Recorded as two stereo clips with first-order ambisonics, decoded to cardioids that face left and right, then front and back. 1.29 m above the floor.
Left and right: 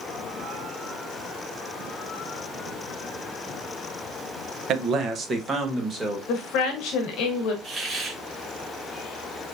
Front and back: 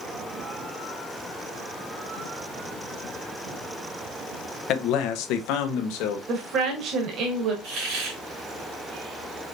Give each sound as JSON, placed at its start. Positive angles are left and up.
{"t": 4.7, "sound": "a man speaking", "azimuth_deg": -40, "distance_m": 0.8}
{"t": 6.3, "sound": "a woman speaking", "azimuth_deg": 130, "distance_m": 1.4}
{"t": 7.6, "sound": "a hiss", "azimuth_deg": -160, "distance_m": 3.5}